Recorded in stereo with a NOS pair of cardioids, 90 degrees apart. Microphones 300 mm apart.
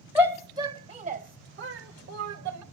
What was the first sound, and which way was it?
A shout, 5° right.